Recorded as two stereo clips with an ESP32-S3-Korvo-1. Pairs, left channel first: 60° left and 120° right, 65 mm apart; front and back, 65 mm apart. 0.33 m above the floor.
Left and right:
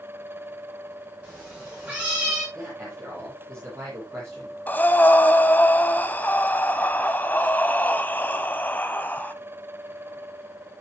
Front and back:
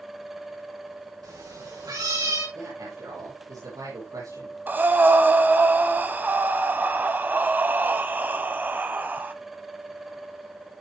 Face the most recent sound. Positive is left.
turn(degrees=120)